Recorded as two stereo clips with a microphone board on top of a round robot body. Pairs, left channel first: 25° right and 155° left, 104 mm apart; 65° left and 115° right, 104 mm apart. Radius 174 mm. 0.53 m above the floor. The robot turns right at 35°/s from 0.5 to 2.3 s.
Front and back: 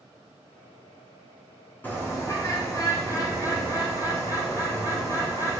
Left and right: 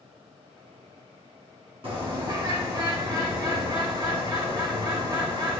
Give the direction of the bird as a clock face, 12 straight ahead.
3 o'clock.